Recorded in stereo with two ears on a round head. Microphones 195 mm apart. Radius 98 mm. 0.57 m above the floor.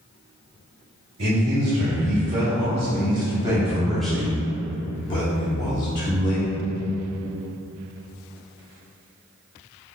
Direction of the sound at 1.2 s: 55° right (ahead or behind).